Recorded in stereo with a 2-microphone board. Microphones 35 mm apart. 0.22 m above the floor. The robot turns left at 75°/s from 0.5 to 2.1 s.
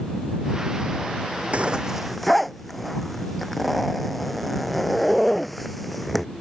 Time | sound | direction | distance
1.5 | a zipper | 40° right (ahead or behind) | ?